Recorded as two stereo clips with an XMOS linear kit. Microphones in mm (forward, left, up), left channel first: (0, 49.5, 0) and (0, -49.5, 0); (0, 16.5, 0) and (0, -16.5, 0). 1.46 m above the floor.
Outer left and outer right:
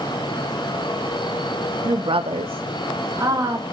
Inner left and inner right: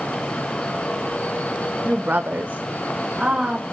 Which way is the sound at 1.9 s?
35° right (ahead or behind).